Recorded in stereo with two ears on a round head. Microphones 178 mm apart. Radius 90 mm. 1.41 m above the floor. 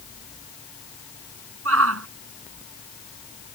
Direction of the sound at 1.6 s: 80° right.